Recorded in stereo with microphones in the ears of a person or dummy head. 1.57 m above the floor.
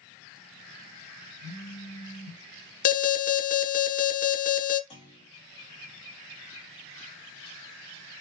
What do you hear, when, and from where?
1.4 s a phone buzzing: centre (ahead or behind), 2.5 m
2.9 s an alarm: 45° left (ahead or behind), 1.1 m
4.9 s a clunk: 40° left (ahead or behind), 2 m